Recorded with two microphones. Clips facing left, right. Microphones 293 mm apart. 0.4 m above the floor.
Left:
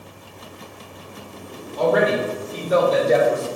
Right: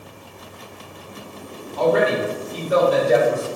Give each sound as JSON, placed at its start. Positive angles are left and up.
{"t": 1.8, "sound": "a man speaking", "side_deg": 15, "distance_m": 0.9}